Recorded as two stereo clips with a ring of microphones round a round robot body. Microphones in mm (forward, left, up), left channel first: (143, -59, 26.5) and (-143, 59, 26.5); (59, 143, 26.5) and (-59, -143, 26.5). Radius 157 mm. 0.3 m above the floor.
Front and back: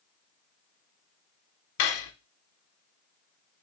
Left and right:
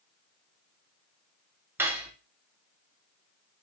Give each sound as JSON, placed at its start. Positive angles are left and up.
{"t": 1.8, "sound": "cutlery clinking", "azimuth_deg": -30, "distance_m": 0.7}